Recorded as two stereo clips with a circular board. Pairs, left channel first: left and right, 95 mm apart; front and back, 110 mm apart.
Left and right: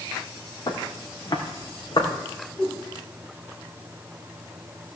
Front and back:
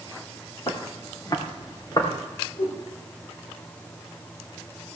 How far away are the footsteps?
About 3 m.